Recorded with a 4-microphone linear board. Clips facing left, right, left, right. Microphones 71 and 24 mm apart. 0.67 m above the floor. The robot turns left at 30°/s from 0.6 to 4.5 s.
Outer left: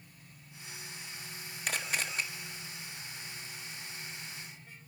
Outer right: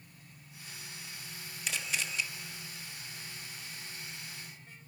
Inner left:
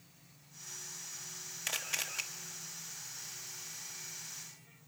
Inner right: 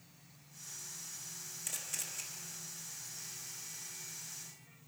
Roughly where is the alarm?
No alarm in this recording.